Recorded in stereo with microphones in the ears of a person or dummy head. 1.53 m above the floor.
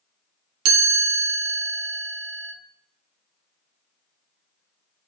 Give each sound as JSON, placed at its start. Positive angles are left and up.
{"t": 0.7, "sound": "a chime", "side_deg": -75, "distance_m": 0.8}